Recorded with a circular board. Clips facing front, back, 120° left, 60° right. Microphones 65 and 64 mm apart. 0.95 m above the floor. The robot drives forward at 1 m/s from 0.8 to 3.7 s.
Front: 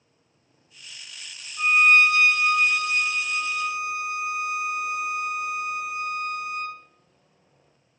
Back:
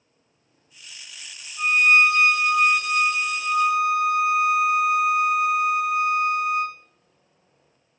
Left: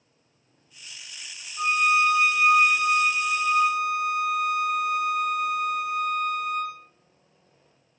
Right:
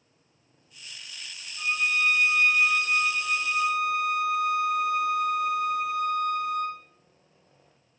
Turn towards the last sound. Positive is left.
turn(degrees=160)